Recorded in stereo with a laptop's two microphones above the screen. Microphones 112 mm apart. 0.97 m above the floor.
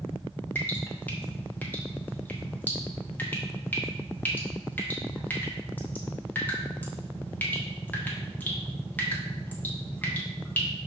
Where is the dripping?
15° left (ahead or behind), 1.3 m.